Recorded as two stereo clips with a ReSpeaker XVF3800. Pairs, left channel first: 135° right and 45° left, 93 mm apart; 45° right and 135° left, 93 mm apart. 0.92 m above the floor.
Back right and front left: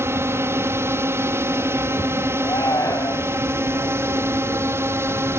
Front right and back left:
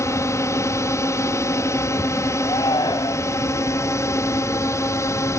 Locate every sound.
0.0 s a drone: 5° right
2.4 s a shout: 85° right